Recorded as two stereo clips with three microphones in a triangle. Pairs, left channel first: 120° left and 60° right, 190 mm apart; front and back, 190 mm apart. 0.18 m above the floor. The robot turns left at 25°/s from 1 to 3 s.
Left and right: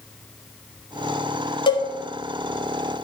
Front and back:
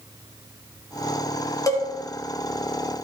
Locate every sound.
1.7 s a cowbell: 65° left, 1.8 m; by 1.9 s 60° left, 1.8 m